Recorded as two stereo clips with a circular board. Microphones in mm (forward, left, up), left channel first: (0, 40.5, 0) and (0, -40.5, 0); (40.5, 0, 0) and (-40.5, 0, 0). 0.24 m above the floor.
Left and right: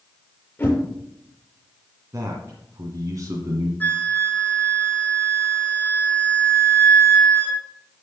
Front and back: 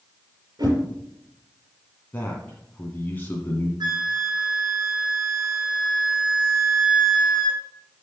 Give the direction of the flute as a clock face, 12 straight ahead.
7 o'clock.